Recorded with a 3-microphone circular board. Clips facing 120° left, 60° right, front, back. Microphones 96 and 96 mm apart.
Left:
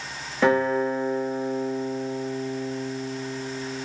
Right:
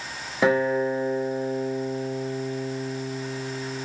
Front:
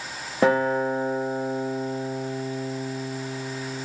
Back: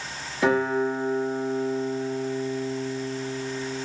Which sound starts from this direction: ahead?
A guitar, at 0.4 s.